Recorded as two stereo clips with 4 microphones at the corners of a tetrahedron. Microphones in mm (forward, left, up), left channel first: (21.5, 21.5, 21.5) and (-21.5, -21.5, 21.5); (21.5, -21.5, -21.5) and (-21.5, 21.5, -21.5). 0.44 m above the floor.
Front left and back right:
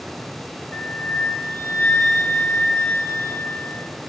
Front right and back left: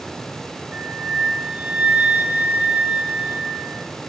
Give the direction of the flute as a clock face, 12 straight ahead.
9 o'clock.